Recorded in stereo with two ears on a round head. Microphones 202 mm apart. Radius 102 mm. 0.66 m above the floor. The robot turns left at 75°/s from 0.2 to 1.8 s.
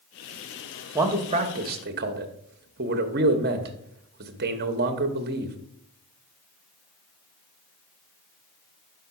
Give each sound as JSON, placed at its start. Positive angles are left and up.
{"t": 0.9, "sound": "a man speaking", "azimuth_deg": -15, "distance_m": 0.8}